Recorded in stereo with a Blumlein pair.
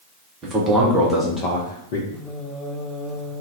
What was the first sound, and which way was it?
A man speaking, 30° right.